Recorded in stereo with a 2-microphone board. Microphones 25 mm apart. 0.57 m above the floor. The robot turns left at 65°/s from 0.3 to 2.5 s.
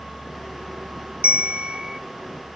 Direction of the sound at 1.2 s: 95° right.